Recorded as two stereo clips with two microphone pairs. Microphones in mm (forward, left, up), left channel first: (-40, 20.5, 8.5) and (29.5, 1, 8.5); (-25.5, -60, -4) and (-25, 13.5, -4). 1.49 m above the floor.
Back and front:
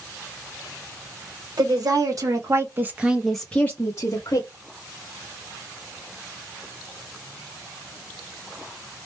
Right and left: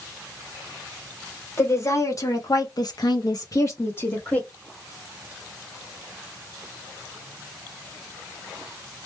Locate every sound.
1.6 s a woman speaking: 40° right, 1.2 m; by 4.5 s 160° right, 0.9 m